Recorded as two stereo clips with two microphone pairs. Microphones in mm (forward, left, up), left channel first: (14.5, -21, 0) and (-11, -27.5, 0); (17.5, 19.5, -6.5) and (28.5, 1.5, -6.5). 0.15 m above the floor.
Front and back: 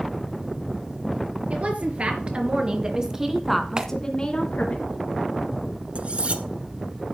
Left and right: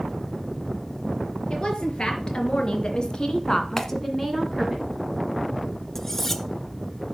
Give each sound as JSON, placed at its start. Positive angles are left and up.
{"t": 1.5, "sound": "a woman speaking", "azimuth_deg": 170, "distance_m": 3.5}
{"t": 3.8, "sound": "a clap", "azimuth_deg": 180, "distance_m": 1.3}
{"t": 6.0, "sound": "cutlery clinking", "azimuth_deg": -160, "distance_m": 0.9}